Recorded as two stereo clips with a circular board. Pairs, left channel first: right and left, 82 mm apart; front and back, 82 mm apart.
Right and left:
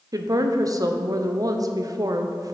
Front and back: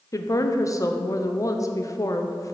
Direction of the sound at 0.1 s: 45° left.